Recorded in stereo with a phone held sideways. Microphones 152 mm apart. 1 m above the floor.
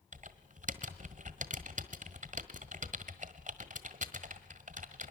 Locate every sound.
0.1 s typing on a keyboard: 60° right (ahead or behind), 1.4 m